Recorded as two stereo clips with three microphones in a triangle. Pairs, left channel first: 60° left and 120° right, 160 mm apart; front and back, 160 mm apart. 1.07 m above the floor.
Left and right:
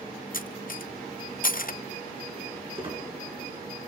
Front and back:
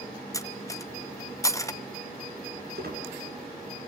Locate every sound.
0.3 s cutlery clinking: 70° left, 0.6 m
2.8 s a squeak: 175° right, 5.5 m